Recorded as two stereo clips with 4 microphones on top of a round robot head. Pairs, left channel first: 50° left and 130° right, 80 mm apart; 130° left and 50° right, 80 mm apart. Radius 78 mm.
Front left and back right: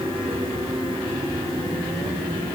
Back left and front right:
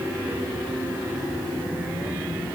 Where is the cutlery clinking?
No cutlery clinking in this recording.